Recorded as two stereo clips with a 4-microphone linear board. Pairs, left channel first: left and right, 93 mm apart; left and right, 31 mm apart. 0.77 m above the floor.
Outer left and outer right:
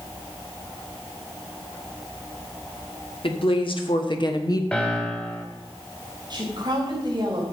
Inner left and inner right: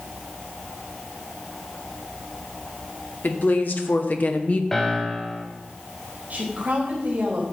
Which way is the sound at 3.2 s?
65° left (ahead or behind).